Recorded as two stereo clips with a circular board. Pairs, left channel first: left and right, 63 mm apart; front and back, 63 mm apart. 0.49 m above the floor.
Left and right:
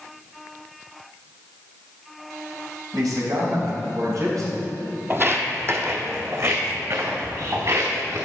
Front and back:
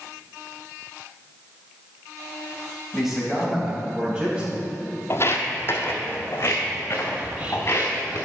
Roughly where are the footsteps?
Ahead right.